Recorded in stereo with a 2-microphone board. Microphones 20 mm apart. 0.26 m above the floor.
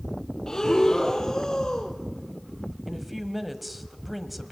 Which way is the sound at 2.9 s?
5° right (ahead or behind).